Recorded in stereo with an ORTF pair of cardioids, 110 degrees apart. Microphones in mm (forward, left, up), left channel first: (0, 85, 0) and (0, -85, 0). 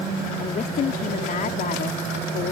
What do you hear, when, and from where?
0.4 s a woman speaking: 50° left